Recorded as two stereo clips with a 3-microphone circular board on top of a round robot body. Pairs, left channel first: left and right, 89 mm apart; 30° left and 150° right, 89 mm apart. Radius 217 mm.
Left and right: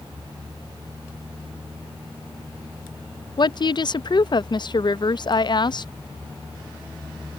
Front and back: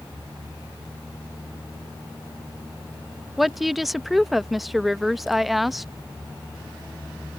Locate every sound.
3.4 s a woman speaking: 120° left